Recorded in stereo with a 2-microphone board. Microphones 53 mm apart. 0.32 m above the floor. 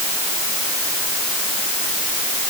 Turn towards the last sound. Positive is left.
No sound to turn to.